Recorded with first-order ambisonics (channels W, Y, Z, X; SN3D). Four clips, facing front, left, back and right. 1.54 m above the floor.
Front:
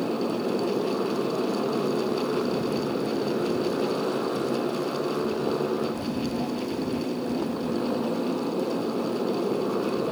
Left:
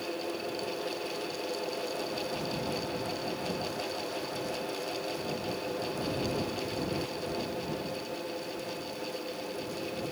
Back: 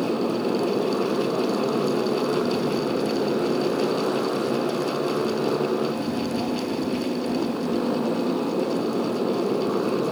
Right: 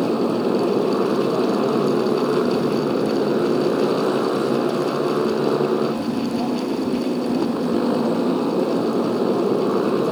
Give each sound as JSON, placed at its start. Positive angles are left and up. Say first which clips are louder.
{"t": 0.0, "sound": "a motorcycle", "louder": "right 15 dB, back 3 dB", "azimuth_deg": -100}